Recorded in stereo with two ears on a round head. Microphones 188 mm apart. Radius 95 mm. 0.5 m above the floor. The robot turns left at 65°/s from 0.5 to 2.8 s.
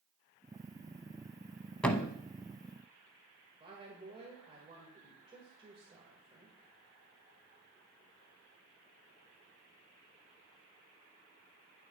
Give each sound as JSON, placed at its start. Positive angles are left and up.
{"t": 1.8, "sound": "a thud", "side_deg": 5, "distance_m": 0.7}
{"t": 3.6, "sound": "a woman speaking", "side_deg": -30, "distance_m": 2.0}